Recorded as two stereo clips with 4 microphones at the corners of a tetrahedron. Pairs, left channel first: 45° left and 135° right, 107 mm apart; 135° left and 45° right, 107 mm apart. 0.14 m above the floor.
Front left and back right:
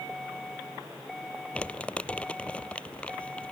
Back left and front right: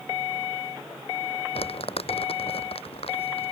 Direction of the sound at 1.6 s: 125° left.